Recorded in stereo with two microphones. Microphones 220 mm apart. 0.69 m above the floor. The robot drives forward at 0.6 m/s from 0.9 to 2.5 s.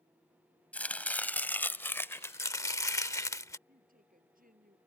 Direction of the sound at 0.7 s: 5° left (ahead or behind).